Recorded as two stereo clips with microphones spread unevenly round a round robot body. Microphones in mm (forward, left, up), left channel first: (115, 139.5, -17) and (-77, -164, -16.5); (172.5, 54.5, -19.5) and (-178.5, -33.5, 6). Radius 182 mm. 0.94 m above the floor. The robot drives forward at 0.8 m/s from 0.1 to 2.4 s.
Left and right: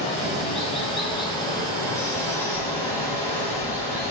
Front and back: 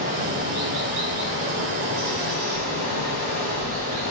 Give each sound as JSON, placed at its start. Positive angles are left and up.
{"t": 0.0, "sound": "running water", "azimuth_deg": 130, "distance_m": 5.5}